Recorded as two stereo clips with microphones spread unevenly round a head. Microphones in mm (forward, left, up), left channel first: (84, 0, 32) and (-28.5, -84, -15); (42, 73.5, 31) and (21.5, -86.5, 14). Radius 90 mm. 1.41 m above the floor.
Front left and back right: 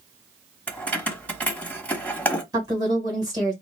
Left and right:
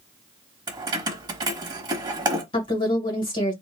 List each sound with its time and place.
0.7 s keys jangling: 35° right, 1.0 m
2.5 s a woman speaking: 145° left, 1.7 m